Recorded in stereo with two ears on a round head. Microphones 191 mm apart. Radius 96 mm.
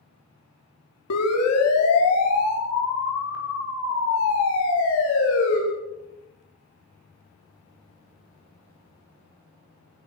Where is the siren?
85° left, 5 m; by 5.6 s 65° left (ahead or behind), 8 m.